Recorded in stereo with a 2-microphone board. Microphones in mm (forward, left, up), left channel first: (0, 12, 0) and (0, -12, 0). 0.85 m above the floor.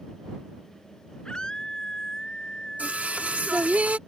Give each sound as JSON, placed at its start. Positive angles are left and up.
{"t": 1.2, "sound": "a scream", "side_deg": 30}
{"t": 2.8, "sound": "singing", "side_deg": -80}